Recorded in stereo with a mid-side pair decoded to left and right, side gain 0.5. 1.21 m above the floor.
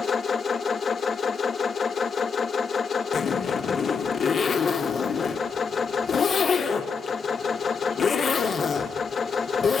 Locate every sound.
0.0 s a machine running: 40° left, 1.1 m
3.1 s a zipper: 45° left, 2.5 m